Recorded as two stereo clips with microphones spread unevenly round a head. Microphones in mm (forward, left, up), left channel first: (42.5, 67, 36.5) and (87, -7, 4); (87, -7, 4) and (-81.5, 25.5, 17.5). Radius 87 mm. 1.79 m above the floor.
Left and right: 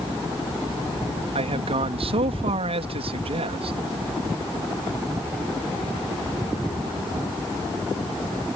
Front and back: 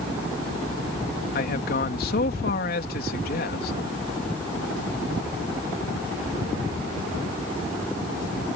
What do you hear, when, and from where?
1.4 s a man speaking: 50° right